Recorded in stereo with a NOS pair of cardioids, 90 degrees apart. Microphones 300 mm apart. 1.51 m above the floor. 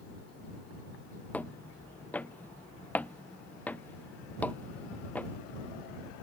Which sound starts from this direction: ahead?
Footsteps, at 1.3 s.